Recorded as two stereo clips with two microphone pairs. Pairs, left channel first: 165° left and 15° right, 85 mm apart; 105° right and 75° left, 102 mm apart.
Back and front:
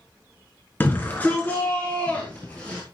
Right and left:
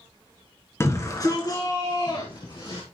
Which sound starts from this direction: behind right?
A shout, at 0.8 s.